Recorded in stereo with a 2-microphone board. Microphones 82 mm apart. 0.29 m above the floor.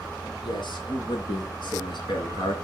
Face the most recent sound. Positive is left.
turn(degrees=70)  # may be behind; listen again after turning